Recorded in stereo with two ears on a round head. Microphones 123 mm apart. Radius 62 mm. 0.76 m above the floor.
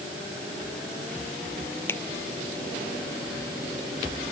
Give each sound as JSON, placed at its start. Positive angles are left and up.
{"t": 1.9, "sound": "a finger snap", "side_deg": 15}